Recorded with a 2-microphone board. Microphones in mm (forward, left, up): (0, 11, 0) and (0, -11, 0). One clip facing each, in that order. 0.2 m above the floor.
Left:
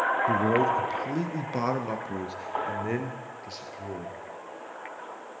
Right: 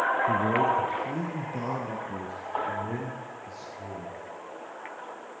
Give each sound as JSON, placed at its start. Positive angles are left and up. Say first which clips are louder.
{"t": 0.3, "sound": "a man speaking", "louder": "left 1 dB", "side_deg": 40, "distance_m": 2.5}